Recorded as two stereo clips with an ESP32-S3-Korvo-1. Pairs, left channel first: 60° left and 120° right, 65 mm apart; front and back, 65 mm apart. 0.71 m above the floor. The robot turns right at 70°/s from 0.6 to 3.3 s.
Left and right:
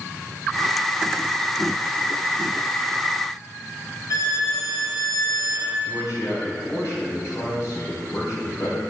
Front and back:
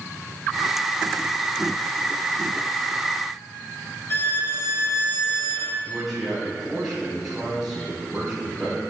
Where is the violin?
50° left, 1.3 m.